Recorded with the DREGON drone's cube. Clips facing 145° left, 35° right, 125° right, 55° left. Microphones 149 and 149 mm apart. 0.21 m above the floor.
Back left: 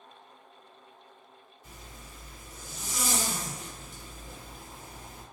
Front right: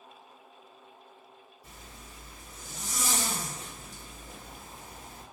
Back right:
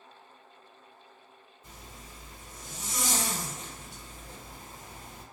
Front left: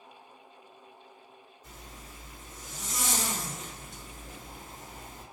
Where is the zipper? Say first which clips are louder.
Back left 1 dB, even; 60° right, 1.9 m.